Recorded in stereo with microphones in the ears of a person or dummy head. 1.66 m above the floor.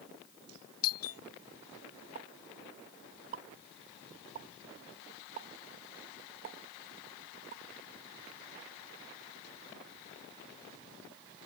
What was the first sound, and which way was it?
A doorbell, 80° left.